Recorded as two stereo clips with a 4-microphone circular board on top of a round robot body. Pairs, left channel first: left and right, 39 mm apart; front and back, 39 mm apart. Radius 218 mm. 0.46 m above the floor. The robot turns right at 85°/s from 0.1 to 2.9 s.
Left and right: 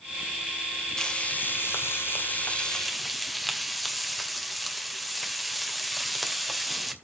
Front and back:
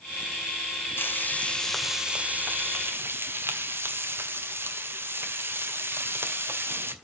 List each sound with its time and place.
1.0 s frying: 20° left, 2 m; by 6.9 s 175° right, 2 m